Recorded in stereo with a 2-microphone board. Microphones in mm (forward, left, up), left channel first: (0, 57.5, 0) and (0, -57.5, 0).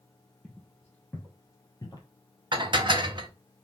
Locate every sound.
0.4 s footsteps: centre (ahead or behind), 1.7 m; by 2.1 s 35° left (ahead or behind), 1.3 m
2.5 s dishes clattering: 45° right (ahead or behind), 0.6 m